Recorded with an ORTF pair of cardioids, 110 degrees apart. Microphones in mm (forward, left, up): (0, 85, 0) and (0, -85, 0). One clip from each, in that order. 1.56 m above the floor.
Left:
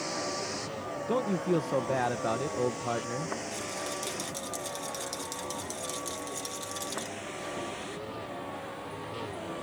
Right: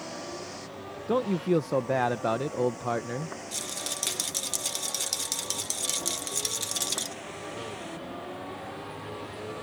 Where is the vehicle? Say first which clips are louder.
Left 4 dB; 40° left; by 9.6 s 5° left.